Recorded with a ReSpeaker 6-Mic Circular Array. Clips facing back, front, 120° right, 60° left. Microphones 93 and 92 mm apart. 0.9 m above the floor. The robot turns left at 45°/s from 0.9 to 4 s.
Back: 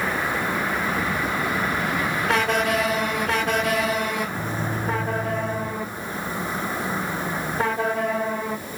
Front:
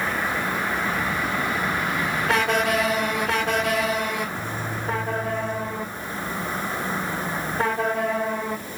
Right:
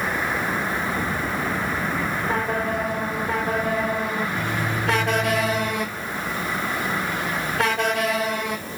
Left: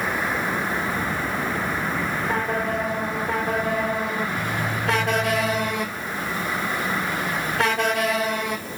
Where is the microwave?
135° left, 4 m.